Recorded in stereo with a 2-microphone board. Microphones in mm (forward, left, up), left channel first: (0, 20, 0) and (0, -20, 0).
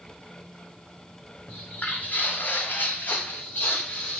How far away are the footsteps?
About 0.7 m.